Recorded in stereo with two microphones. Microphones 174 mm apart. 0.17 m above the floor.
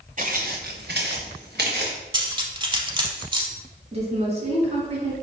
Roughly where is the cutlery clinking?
Right.